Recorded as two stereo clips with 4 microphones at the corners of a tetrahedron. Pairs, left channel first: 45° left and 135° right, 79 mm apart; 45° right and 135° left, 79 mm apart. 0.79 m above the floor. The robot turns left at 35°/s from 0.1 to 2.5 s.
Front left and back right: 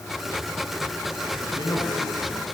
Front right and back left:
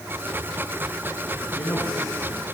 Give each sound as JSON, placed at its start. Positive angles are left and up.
{"t": 1.4, "sound": "a man speaking", "azimuth_deg": 5, "distance_m": 9.5}